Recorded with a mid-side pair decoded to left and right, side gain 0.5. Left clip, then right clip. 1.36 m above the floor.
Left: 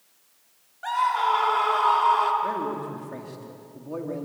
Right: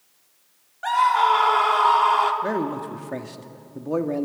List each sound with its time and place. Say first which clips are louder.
0.8 s a scream: right 5 dB; 30° right, 3.5 m
2.4 s a man speaking: right 2 dB; 50° right, 2 m